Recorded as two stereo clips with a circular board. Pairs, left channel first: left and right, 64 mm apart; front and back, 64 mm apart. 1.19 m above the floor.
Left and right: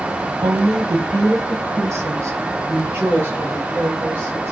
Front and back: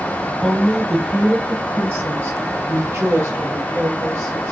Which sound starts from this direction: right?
A woman speaking, at 0.4 s.